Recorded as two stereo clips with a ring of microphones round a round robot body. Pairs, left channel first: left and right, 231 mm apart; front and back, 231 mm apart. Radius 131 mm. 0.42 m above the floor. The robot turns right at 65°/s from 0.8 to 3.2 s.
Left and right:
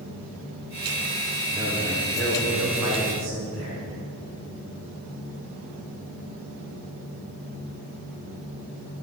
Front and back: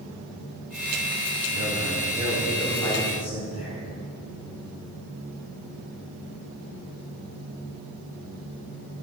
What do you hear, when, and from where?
1.5 s a man speaking: 160° right, 3.5 m; by 3.8 s 50° right, 3.5 m